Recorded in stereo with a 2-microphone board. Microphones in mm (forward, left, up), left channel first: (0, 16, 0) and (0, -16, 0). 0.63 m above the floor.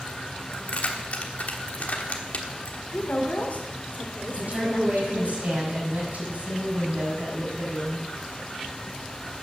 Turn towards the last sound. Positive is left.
turn(degrees=-55)  # may be behind; listen again after turning